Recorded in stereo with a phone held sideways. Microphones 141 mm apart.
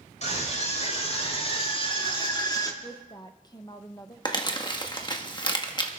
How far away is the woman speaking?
About 1.0 m.